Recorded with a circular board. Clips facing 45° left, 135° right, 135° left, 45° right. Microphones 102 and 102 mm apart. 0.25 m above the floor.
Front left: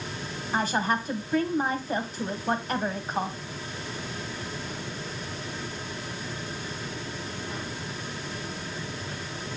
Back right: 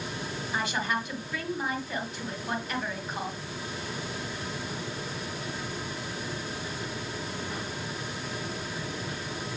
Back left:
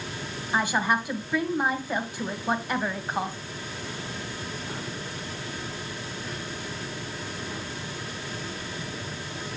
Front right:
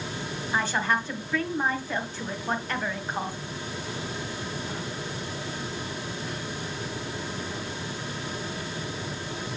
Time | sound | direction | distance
0.5 | a woman speaking | 65° left | 1.8 m